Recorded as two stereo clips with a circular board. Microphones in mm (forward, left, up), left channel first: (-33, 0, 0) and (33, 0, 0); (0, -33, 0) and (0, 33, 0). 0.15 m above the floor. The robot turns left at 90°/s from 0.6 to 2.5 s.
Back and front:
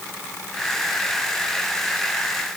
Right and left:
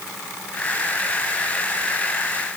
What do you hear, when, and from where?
Only background noise.